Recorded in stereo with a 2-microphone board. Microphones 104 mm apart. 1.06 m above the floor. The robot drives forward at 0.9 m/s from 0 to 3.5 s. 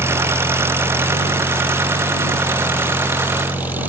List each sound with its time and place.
0.0 s an engine running: 25° right (ahead or behind); by 3.9 s 15° right (ahead or behind)